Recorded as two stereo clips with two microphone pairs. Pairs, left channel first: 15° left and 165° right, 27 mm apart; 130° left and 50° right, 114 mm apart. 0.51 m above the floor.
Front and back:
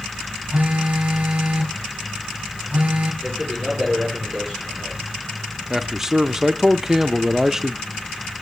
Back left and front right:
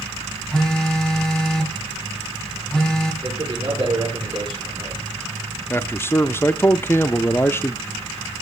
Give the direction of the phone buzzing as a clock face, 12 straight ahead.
5 o'clock.